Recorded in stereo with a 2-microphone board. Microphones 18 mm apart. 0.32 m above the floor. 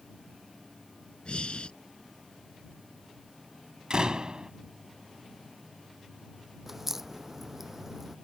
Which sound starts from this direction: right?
A door slam, at 3.9 s.